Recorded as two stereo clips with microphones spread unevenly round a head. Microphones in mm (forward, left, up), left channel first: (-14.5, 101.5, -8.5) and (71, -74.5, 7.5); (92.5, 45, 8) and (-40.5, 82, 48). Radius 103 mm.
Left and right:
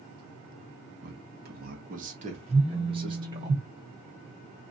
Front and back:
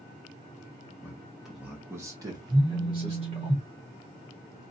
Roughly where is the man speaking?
Right.